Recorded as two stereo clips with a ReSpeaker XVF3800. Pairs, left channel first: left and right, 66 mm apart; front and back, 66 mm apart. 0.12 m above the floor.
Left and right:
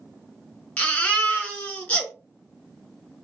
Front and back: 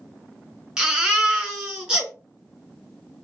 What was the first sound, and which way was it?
A baby crying, 120° left.